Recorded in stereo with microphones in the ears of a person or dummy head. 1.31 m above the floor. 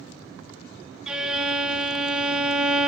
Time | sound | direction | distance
1.1 | a violin | 5° right (ahead or behind) | 0.5 m